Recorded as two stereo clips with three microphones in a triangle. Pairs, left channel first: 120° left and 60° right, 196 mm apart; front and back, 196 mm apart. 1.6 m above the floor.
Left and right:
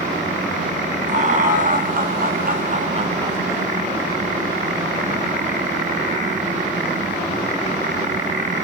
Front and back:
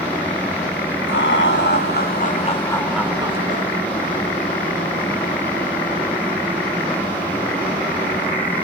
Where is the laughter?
10° right, 1.2 m; by 3.7 s 140° right, 0.7 m.